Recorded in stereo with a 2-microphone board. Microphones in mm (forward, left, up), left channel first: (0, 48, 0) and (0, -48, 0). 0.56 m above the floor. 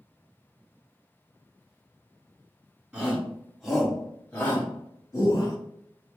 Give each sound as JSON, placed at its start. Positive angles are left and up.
{"t": 2.9, "sound": "a shout", "side_deg": -10, "distance_m": 1.5}